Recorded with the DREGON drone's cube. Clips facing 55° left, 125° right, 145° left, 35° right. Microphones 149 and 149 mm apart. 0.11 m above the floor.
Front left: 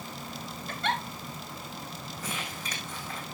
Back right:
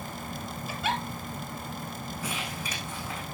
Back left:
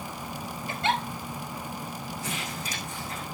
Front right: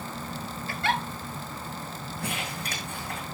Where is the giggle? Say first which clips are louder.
Even, back left 1 dB; 165° left, 1.3 m.